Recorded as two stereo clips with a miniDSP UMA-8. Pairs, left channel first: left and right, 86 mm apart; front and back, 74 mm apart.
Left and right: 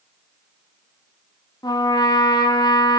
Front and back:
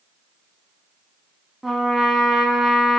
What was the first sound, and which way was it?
A trumpet, 90° left.